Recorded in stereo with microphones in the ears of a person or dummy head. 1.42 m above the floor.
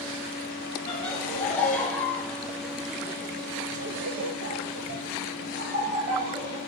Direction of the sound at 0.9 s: 10° left (ahead or behind).